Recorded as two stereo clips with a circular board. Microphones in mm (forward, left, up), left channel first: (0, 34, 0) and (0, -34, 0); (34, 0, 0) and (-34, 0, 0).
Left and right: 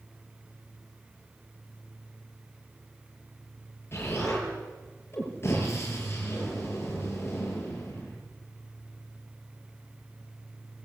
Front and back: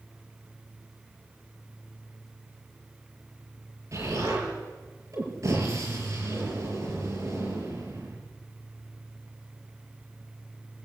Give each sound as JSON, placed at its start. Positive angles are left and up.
{"t": 3.9, "sound": "an explosion", "azimuth_deg": 140, "distance_m": 8.0}